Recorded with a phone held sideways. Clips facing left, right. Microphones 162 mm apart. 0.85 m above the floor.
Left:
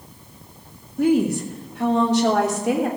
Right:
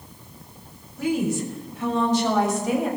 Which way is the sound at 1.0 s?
55° left (ahead or behind).